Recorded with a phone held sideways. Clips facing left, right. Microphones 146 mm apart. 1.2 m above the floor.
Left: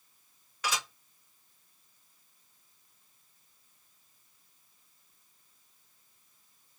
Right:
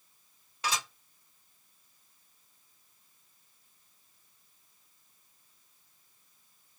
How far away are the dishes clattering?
About 1.8 m.